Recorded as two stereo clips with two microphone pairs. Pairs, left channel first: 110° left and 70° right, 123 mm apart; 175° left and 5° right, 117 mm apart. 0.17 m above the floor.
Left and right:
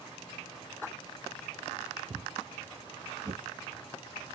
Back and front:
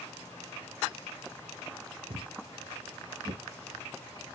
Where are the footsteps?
5° right, 0.7 m; by 3.4 s 25° right, 1.5 m.